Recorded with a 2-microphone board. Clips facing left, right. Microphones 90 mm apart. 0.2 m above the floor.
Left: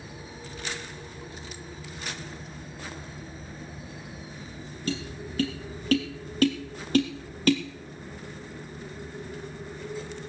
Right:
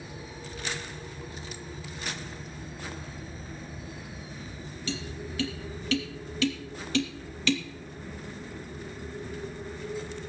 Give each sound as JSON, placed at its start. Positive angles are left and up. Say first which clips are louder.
{"t": 4.9, "sound": "tapping", "louder": "left 3 dB", "side_deg": 50, "distance_m": 2.5}